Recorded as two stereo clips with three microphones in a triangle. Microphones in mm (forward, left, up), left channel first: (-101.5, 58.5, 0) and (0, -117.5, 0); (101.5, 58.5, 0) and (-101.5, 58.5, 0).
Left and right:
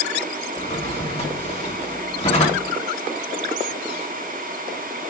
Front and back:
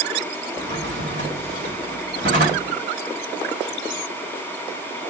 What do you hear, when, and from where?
0.6 s a drawer: 175° left, 2 m